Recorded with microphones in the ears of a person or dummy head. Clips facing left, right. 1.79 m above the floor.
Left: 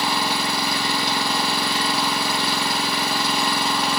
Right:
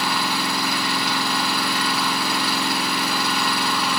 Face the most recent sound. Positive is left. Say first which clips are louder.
# left 1 dB
turn(degrees=30)  # may be behind; listen again after turning